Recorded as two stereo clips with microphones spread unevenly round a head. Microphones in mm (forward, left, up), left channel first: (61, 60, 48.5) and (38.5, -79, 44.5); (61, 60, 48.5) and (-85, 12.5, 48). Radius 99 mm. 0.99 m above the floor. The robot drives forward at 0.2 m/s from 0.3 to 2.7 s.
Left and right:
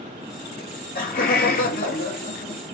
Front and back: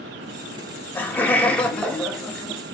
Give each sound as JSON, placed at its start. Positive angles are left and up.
{"t": 0.6, "sound": "laughter", "azimuth_deg": 95, "distance_m": 1.7}